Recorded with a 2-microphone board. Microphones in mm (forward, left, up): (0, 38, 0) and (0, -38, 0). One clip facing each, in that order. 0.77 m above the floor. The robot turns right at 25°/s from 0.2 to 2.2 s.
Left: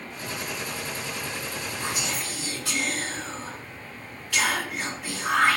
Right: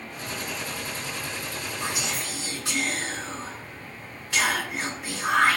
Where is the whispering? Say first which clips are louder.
Right 1 dB; 20° right (ahead or behind), 1.9 m; by 5.6 s 30° right (ahead or behind), 1.9 m.